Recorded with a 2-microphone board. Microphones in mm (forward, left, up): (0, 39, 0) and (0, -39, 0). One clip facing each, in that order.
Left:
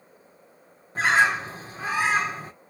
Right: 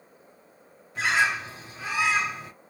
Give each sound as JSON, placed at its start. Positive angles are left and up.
{"t": 0.9, "sound": "a bird", "side_deg": 35, "distance_m": 1.0}